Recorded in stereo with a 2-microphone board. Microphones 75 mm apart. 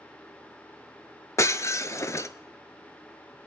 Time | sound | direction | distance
1.4 | breaking glass | 40° left (ahead or behind) | 0.5 m